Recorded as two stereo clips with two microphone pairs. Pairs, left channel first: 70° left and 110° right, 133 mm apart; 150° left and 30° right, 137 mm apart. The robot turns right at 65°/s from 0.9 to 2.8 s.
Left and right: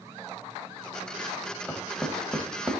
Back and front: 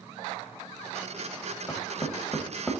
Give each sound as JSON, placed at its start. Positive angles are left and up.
{"t": 1.7, "sound": "knocking", "azimuth_deg": 155, "distance_m": 0.9}